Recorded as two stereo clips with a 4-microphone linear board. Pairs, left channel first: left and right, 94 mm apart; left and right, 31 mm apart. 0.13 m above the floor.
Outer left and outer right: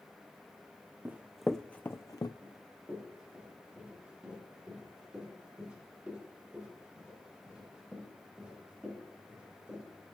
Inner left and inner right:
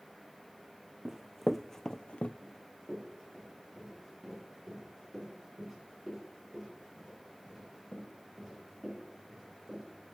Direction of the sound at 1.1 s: 20° right (ahead or behind).